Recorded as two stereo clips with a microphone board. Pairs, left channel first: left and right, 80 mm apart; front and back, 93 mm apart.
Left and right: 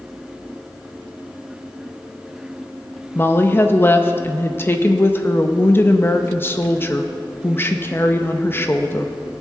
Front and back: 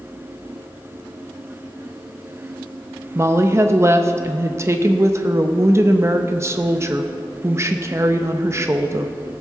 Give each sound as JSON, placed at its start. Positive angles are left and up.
{"t": 3.1, "sound": "a woman speaking", "azimuth_deg": 135, "distance_m": 0.7}